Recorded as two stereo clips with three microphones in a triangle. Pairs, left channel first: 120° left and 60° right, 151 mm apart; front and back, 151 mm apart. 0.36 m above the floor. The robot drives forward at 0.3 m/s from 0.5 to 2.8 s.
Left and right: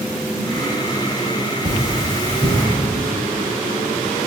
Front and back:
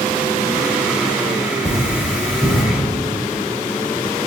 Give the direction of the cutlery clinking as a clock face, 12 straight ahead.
2 o'clock.